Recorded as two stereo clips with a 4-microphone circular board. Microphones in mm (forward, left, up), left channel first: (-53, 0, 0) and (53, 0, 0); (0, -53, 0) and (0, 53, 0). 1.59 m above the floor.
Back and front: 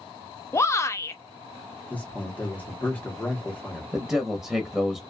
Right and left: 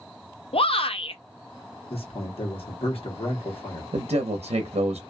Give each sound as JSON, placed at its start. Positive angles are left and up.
{"t": 0.5, "sound": "a shout", "azimuth_deg": -115, "distance_m": 0.5}
{"t": 1.9, "sound": "a man speaking", "azimuth_deg": -105, "distance_m": 1.1}
{"t": 3.9, "sound": "a man speaking", "azimuth_deg": 85, "distance_m": 0.6}